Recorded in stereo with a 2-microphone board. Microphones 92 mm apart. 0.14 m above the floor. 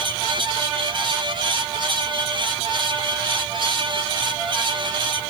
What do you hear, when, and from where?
Only background noise.